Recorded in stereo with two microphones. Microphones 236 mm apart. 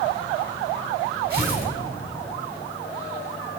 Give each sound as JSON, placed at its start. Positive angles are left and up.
{"t": 1.3, "sound": "tearing paper", "side_deg": -45, "distance_m": 4.5}